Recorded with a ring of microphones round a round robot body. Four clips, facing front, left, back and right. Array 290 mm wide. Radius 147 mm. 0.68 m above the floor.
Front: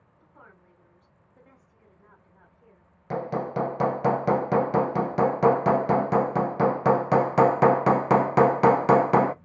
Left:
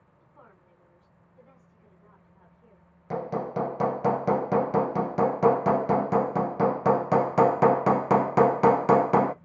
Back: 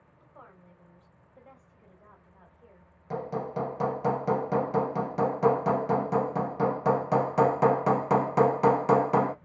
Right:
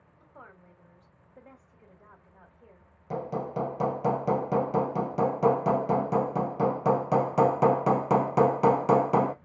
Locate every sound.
0.2 s a woman speaking: 75° right, 4 m
3.1 s hammering: 20° left, 0.6 m